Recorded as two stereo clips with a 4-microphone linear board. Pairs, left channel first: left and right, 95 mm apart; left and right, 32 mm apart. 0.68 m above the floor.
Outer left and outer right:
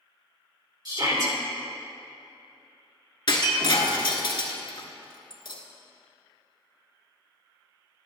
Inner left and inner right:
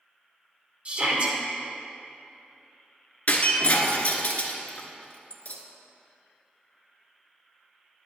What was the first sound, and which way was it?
A shout, 45° right (ahead or behind).